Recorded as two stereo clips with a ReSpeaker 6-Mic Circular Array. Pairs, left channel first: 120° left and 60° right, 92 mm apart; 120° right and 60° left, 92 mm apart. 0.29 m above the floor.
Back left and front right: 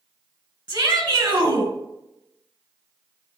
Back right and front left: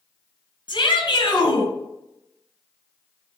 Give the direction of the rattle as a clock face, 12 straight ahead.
No rattle in this recording.